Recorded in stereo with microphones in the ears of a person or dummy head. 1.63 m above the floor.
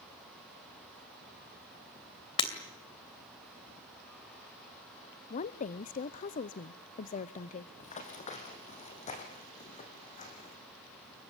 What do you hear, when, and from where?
2.4 s breaking glass: 30° left (ahead or behind), 2.5 m
5.3 s a woman speaking: 40° left (ahead or behind), 0.7 m
7.8 s running footsteps: 35° left (ahead or behind), 3 m